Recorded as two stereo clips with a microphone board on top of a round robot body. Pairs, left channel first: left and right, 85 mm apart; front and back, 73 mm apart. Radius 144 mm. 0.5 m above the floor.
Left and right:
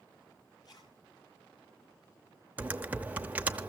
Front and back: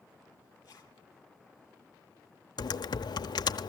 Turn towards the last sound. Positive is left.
turn(degrees=-15)